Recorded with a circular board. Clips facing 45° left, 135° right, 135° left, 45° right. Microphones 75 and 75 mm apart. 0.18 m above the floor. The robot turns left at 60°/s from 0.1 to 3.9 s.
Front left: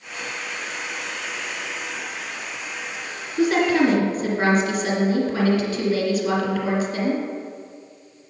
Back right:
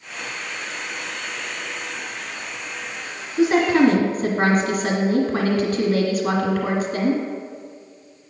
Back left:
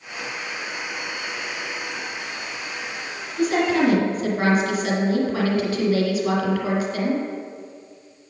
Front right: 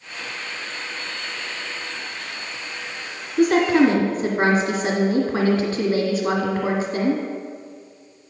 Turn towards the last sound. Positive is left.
turn(degrees=-100)